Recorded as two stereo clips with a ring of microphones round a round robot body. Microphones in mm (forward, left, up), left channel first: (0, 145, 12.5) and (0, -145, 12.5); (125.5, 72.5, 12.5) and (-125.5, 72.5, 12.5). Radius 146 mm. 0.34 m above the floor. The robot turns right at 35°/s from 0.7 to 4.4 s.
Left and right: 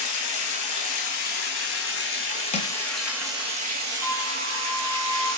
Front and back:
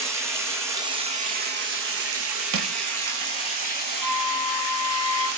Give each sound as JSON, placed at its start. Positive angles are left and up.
{"t": 0.0, "sound": "running water", "azimuth_deg": 100, "distance_m": 2.5}
{"t": 2.5, "sound": "crushing", "azimuth_deg": 155, "distance_m": 1.1}
{"t": 4.0, "sound": "a flute", "azimuth_deg": -175, "distance_m": 1.3}